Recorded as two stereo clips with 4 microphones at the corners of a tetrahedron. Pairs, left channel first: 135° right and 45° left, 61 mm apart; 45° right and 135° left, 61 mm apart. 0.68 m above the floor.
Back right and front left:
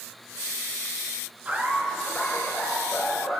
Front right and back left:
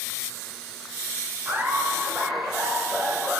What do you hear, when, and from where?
1.4 s laughter: 95° left, 0.7 m; by 3.4 s 140° right, 1.3 m